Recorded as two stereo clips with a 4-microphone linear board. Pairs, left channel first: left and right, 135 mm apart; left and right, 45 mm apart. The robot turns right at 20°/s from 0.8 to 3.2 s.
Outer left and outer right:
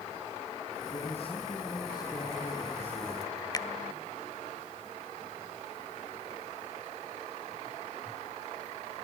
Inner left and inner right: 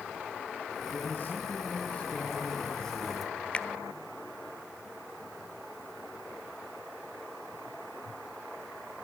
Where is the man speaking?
120° left, 7 m; by 3.4 s 165° left, 7 m.